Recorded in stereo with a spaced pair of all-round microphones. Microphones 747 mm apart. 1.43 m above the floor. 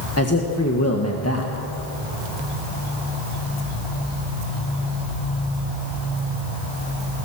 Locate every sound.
0.2 s a man speaking: 20° left (ahead or behind), 1.6 m